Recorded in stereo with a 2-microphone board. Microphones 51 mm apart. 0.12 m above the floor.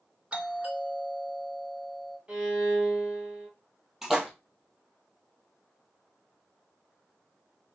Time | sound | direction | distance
0.3 | a doorbell | 20° right (ahead or behind) | 2 m
2.3 | a violin | 15° right (ahead or behind) | 3 m
4.0 | a splash | 5° right (ahead or behind) | 1.9 m